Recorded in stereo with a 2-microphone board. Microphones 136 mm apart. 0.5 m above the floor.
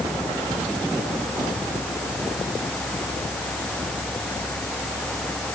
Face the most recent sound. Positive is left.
No sound to turn to.